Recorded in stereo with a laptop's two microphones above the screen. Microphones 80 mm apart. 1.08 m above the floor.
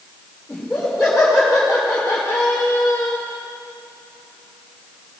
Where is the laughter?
5° left (ahead or behind), 3.5 m; by 3.2 s 40° left (ahead or behind), 1.7 m.